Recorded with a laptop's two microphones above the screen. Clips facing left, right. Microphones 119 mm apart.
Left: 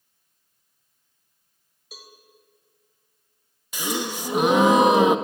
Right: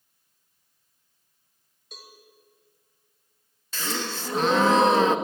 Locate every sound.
1.9 s a cowbell: 5° left (ahead or behind), 1.5 m
3.7 s a gasp: 15° left (ahead or behind), 0.8 m